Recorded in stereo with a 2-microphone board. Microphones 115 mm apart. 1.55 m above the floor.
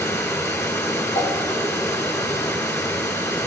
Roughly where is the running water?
Left.